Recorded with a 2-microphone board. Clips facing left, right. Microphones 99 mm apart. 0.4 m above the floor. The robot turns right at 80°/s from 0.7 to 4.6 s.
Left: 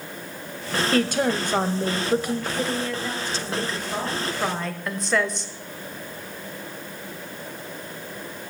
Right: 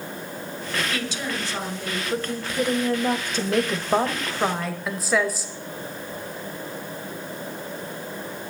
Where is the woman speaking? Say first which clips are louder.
Left 8 dB; 60° left, 1.6 m; by 5.5 s 5° right, 1.6 m.